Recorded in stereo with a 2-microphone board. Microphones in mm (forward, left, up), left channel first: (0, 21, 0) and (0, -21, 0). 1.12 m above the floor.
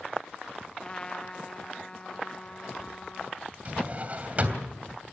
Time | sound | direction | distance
0.8 | a trumpet | 20° left (ahead or behind) | 0.7 m
3.6 | a drawer | 40° right (ahead or behind) | 2.5 m